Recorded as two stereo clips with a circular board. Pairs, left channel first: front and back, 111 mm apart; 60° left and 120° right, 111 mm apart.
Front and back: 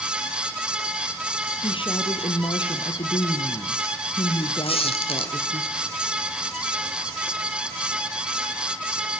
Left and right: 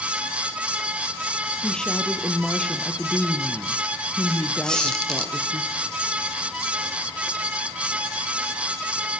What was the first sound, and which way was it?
A woman speaking, 20° right.